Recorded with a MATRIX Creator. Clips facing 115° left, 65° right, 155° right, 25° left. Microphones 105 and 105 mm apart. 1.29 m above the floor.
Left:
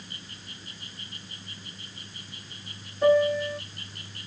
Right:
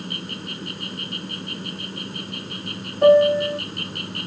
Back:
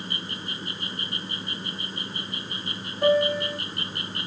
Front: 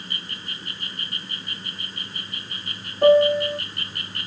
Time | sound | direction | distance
0.0 | an insect | 90° right | ?
3.0 | a piano | 25° right | ?